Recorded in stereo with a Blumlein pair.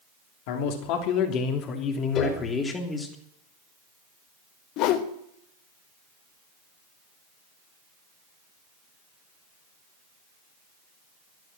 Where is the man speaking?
45° left, 3 m; by 3.1 s 10° left, 3.5 m.